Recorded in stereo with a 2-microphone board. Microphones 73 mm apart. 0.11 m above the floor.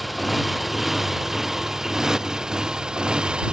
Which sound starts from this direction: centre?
A motorcycle, at 0.0 s.